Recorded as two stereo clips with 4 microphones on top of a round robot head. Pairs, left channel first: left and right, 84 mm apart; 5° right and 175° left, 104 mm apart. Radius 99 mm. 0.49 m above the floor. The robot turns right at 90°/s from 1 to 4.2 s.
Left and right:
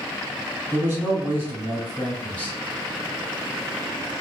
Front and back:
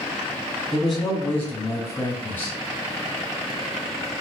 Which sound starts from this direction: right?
A man speaking, at 0.7 s.